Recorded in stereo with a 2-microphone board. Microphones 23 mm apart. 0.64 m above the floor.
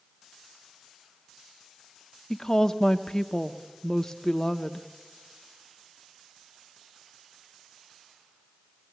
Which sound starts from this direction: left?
A woman speaking, at 2.3 s.